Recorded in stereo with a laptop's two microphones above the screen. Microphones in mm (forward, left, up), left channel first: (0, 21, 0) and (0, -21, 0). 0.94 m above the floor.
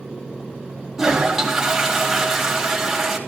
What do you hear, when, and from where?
1.0 s a toilet flushing: 10° right (ahead or behind), 2 m